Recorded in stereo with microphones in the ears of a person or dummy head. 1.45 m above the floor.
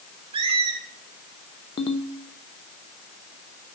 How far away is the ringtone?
About 0.7 m.